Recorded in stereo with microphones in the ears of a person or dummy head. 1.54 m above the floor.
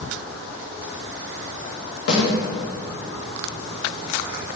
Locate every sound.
2.1 s a snare drum: 70° left (ahead or behind), 4 m